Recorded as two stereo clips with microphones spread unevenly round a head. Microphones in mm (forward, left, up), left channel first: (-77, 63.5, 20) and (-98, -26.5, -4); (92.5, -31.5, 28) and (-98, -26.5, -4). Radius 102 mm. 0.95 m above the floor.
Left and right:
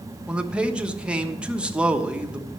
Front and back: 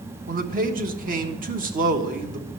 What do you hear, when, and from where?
0.3 s a man speaking: 170° right, 1.2 m